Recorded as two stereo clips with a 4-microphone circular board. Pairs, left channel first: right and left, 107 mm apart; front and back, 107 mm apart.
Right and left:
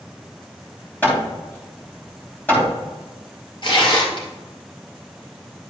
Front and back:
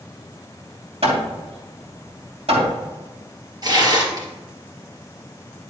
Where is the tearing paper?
130° right, 2 m.